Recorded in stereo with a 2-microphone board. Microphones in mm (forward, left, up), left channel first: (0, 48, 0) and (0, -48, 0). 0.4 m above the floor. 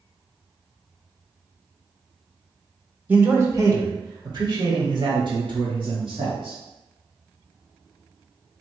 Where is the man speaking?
20° right (ahead or behind), 0.9 m; by 6.5 s 65° right (ahead or behind), 2.5 m.